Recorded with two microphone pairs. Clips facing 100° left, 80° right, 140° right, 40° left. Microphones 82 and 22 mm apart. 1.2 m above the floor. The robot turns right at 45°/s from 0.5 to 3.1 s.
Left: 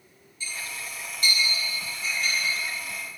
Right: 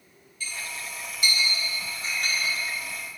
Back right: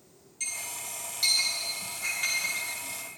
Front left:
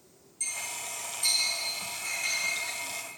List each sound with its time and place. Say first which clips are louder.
0.4 s a clink: even, front left 1 dB; 165° left, 4 m; by 2.6 s 100° right, 4 m